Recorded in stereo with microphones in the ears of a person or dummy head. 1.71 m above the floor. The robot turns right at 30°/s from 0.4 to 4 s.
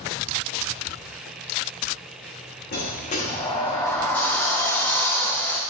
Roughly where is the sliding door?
Behind left.